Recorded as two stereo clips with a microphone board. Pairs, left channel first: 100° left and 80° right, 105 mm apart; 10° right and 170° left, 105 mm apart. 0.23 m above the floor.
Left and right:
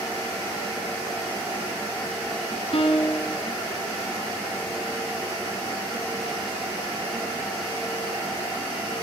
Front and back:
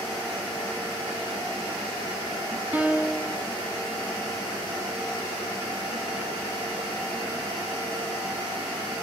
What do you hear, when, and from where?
2.7 s a piano: 100° left, 1.6 m